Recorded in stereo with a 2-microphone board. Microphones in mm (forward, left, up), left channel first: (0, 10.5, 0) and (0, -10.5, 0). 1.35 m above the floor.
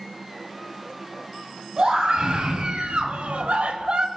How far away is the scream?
About 3.5 m.